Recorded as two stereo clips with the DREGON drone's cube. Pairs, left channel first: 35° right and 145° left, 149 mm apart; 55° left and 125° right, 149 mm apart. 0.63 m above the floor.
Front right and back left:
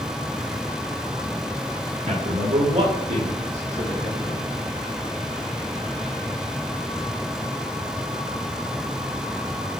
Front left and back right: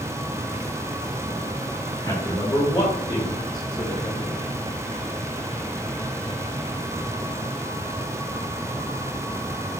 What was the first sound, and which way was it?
A man speaking, 115° left.